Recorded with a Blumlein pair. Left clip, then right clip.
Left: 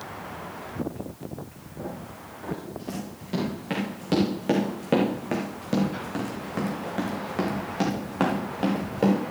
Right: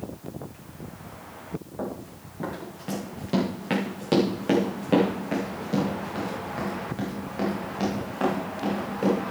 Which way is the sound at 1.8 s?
30° right.